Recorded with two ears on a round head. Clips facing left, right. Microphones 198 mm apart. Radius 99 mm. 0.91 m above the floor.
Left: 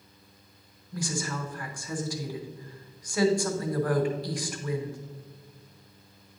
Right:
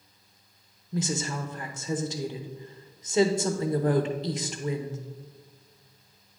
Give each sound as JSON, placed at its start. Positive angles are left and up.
{"t": 0.9, "sound": "a woman speaking", "side_deg": -20, "distance_m": 0.7}